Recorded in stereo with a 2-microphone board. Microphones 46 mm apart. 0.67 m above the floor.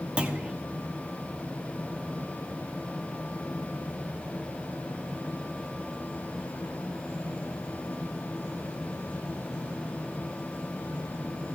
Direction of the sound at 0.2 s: 25° right (ahead or behind).